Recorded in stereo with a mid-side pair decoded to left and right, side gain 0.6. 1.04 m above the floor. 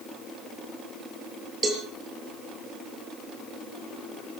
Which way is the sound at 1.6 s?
25° right.